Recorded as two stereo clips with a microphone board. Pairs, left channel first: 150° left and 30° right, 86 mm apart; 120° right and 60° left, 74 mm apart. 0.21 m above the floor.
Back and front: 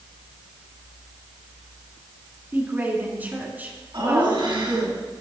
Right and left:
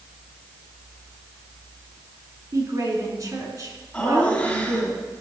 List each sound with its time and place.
2.5 s a woman speaking: 35° left, 2.5 m
3.9 s laughter: 45° right, 3.5 m